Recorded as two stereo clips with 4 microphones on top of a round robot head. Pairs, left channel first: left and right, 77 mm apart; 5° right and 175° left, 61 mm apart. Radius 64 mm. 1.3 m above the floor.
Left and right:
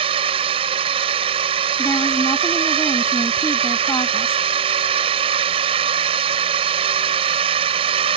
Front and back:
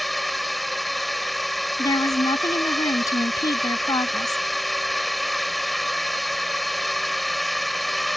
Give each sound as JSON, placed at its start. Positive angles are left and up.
{"t": 0.0, "sound": "a drone", "azimuth_deg": -95}
{"t": 1.8, "sound": "a woman speaking", "azimuth_deg": 25}